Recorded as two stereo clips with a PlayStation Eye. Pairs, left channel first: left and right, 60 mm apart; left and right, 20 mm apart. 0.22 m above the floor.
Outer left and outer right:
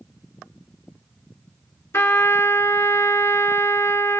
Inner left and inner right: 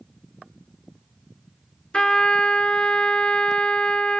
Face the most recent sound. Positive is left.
turn(degrees=50)  # may be behind; listen again after turning